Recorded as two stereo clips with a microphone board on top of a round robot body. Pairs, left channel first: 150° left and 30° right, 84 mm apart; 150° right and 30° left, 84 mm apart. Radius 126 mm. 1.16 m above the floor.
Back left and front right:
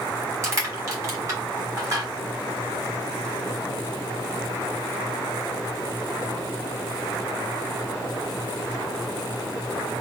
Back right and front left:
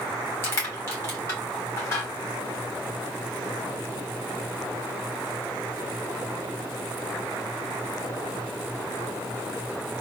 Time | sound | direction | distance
0.4 | crushing | 90° right | 1.3 m